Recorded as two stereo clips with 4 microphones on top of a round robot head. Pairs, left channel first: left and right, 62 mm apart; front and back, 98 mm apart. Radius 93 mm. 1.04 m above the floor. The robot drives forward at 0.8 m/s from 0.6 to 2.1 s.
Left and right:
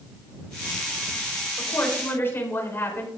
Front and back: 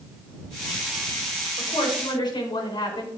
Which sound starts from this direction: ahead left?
A woman speaking, at 1.6 s.